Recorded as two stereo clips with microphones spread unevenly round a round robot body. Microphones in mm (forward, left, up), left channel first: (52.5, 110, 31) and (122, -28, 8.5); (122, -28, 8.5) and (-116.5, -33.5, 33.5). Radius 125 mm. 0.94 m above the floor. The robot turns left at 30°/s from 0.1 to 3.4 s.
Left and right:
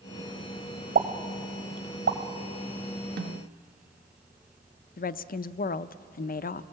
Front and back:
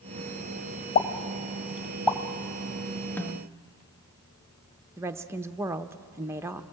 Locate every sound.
0.9 s a pop: 35° right, 1.4 m; by 2.2 s 75° right, 1.4 m
3.2 s a snare drum: 80° right, 0.6 m; by 3.6 s 85° right, 0.6 m
5.0 s a woman speaking: 100° left, 0.6 m